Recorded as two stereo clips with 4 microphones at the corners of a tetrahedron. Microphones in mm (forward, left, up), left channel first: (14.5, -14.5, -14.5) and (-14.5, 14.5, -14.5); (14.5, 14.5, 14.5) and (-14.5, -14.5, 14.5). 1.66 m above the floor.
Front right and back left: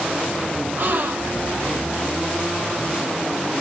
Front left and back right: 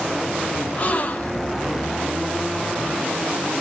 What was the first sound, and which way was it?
A gasp, 100° left.